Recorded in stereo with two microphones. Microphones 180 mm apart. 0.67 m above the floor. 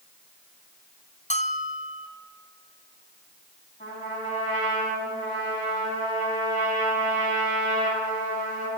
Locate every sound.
1.3 s a bell: 40° left (ahead or behind), 0.9 m
3.8 s a trumpet: 45° left (ahead or behind), 5 m